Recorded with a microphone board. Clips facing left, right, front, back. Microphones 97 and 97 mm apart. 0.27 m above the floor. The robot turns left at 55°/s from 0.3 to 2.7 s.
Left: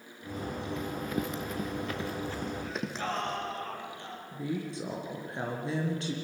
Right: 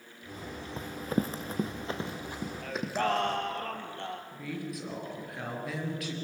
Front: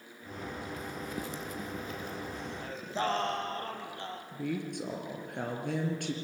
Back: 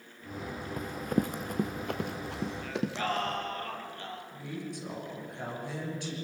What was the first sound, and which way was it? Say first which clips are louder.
Running footsteps: right 4 dB, back 7 dB; 145° right.